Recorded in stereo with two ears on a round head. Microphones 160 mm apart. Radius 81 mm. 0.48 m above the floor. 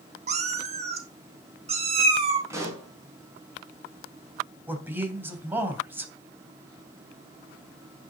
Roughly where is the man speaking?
Centre.